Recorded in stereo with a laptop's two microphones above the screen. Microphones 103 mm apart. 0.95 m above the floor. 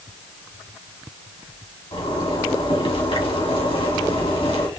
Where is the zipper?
60° left (ahead or behind), 1.8 m.